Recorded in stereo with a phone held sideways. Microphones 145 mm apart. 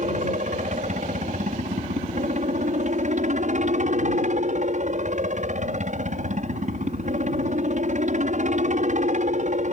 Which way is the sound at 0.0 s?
60° right (ahead or behind).